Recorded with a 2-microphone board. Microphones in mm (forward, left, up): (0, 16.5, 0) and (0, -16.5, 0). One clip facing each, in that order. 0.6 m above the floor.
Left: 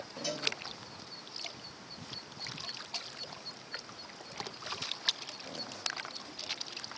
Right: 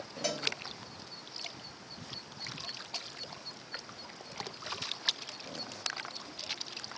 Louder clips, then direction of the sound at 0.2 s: Right 1 dB; 75° right (ahead or behind).